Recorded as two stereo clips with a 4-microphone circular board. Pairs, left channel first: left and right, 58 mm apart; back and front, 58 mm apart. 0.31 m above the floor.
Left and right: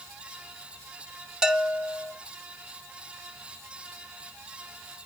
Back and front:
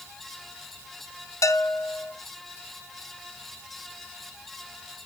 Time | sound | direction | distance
1.4 | a bell | 165° right | 1.1 m